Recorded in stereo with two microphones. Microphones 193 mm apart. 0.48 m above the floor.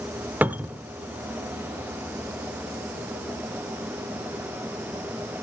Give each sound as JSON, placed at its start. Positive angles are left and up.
{"t": 0.4, "sound": "a cupboard door", "side_deg": -10, "distance_m": 0.5}